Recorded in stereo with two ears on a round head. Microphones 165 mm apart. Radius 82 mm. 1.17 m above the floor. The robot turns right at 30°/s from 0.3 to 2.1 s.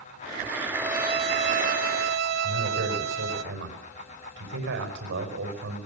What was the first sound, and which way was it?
A violin, 165° right.